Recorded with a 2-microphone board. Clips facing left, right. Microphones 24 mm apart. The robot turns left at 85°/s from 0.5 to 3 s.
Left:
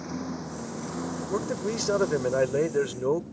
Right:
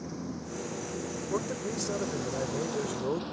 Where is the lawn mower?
30° left (ahead or behind); by 3.4 s 90° right.